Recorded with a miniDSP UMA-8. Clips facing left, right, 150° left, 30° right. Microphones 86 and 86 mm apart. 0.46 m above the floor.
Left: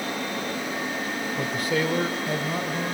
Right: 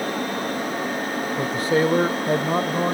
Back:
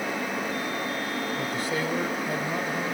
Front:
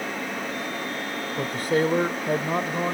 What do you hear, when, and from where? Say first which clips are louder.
1.4 s a man speaking: right 6 dB, front 5 dB; 35° right, 1.0 m; by 2.9 s 70° right, 1.6 m